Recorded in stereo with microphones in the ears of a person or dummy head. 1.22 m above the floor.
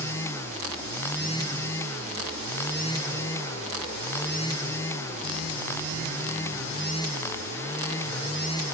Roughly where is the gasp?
No gasp in this recording.